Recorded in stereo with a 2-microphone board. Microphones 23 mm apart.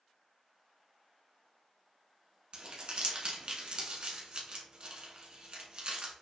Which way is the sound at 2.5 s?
50° right (ahead or behind).